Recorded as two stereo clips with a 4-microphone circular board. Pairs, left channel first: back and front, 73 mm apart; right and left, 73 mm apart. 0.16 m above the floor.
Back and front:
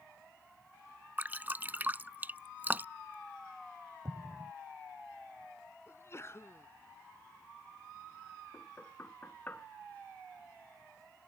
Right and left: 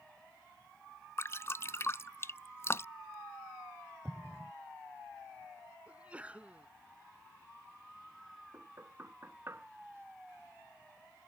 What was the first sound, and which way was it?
Dripping, 55° right.